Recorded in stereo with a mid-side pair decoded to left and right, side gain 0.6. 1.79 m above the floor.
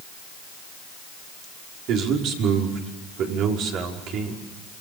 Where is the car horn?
No car horn in this recording.